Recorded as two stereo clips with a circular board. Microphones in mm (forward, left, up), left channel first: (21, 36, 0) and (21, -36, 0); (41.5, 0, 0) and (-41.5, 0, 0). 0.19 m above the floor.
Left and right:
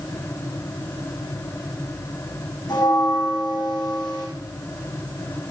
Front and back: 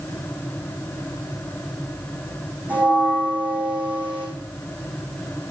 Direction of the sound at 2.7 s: 110° left.